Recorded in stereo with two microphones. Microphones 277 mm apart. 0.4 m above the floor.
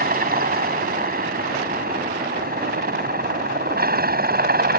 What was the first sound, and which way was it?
A helicopter, 30° right (ahead or behind).